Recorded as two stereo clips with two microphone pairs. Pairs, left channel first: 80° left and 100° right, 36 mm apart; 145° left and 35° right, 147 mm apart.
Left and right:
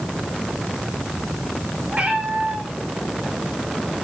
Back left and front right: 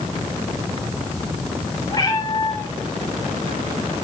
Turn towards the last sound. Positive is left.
turn(degrees=-155)